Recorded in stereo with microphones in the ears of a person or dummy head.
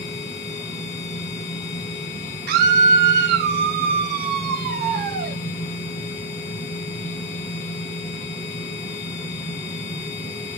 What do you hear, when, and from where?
0.0 s a machine running: 25° left (ahead or behind), 1.0 m
2.5 s a scream: 50° right (ahead or behind), 0.5 m